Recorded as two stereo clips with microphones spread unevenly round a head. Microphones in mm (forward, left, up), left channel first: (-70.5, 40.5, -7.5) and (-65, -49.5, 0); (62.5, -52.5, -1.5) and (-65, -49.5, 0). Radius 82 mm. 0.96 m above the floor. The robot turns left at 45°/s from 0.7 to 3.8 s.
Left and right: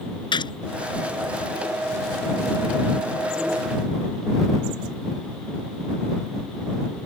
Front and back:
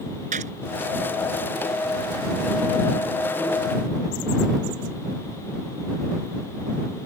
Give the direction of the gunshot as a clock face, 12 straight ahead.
8 o'clock.